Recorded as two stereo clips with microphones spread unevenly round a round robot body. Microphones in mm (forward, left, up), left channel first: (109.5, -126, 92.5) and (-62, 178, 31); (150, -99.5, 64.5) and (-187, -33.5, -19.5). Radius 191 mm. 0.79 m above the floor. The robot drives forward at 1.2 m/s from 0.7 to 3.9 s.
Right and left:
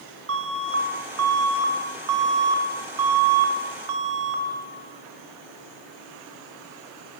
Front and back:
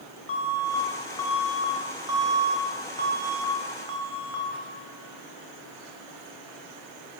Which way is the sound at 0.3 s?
65° left.